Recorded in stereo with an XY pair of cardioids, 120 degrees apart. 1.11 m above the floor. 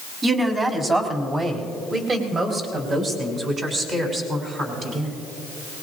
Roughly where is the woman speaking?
Ahead right.